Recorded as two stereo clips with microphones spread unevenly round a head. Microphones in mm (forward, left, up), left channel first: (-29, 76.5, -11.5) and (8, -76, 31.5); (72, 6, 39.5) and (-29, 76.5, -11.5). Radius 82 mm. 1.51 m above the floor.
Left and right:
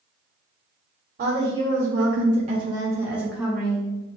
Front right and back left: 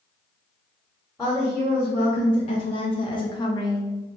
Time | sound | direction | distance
1.2 | a woman speaking | 110° right | 1.1 m